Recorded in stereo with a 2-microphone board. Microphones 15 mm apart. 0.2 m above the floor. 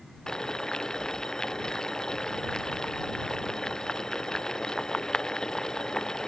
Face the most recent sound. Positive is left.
turn(degrees=50)  # may be behind; listen again after turning